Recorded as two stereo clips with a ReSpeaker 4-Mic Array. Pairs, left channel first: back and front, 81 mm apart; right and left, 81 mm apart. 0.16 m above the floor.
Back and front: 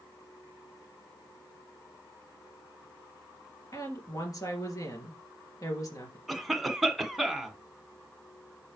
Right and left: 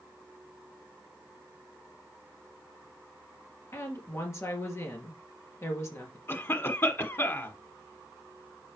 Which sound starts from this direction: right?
A cough, at 6.3 s.